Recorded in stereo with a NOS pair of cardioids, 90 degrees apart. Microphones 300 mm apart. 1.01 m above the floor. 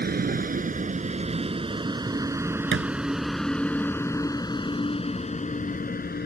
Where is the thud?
40° right.